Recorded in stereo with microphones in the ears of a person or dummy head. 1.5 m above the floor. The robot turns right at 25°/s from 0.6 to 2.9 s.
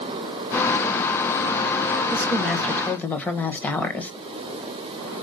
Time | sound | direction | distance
2.1 | a woman speaking | 10° right (ahead or behind) | 1.5 m